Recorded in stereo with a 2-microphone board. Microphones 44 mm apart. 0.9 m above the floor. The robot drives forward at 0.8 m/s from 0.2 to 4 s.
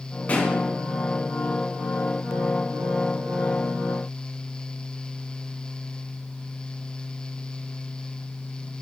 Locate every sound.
0.3 s a pop: 40° left (ahead or behind), 3 m